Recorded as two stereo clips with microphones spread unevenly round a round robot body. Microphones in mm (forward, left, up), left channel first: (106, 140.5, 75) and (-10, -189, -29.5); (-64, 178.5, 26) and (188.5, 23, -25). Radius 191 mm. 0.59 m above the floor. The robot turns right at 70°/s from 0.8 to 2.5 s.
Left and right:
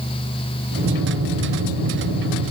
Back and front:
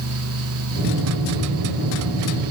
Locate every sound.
Only background noise.